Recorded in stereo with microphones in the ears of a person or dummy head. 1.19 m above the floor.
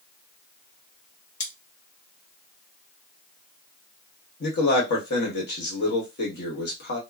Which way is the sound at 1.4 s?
40° left (ahead or behind).